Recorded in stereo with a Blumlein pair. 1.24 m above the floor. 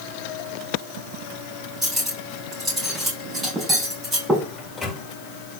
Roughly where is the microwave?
Ahead.